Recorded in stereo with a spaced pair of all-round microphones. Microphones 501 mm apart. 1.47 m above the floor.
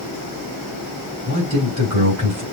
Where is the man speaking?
30° left (ahead or behind), 4 m.